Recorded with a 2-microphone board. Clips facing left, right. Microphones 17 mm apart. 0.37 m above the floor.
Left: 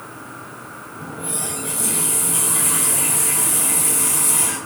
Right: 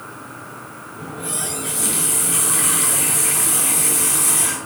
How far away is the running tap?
About 3.5 m.